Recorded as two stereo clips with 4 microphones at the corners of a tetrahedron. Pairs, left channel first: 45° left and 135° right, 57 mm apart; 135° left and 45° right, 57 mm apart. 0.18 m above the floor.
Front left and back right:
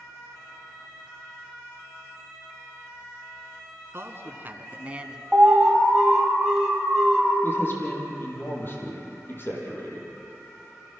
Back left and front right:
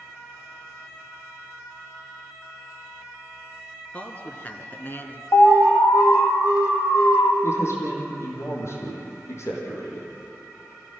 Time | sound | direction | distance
3.9 | a man speaking | 165° right | 2.5 m
5.3 | an alarm | 140° left | 5 m
7.4 | a man speaking | 95° left | 5.5 m